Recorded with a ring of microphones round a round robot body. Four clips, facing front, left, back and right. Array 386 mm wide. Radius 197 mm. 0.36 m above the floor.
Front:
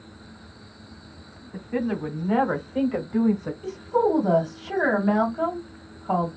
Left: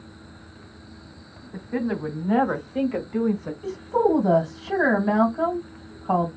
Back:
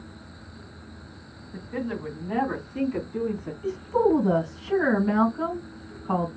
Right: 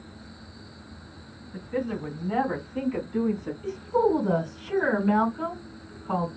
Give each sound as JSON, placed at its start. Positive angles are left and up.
{"t": 1.5, "sound": "a woman speaking", "azimuth_deg": 65, "distance_m": 2.5}
{"t": 3.6, "sound": "a woman speaking", "azimuth_deg": 70, "distance_m": 3.0}